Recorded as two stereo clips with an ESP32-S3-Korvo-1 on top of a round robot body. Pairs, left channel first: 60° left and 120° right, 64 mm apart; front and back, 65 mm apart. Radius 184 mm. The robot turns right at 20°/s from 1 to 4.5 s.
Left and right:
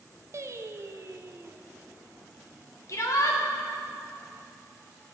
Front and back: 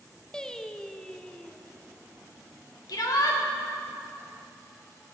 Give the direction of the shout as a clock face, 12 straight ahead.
11 o'clock.